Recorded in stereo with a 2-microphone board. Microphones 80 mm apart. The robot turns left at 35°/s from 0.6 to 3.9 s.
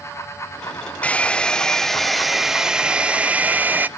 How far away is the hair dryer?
About 0.5 m.